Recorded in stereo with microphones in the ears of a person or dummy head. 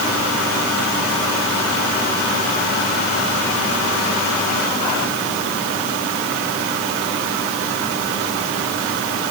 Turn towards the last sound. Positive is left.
No sound to turn to.